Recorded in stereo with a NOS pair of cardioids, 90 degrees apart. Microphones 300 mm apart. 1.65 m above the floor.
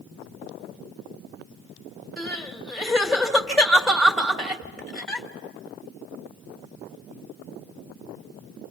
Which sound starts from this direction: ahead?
Crying, at 2.2 s.